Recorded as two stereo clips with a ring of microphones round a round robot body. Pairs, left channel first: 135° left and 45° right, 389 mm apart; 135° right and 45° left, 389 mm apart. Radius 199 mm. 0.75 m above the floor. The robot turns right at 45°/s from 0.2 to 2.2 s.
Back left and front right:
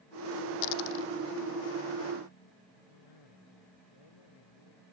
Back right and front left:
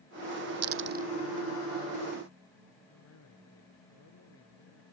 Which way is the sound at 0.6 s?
100° left.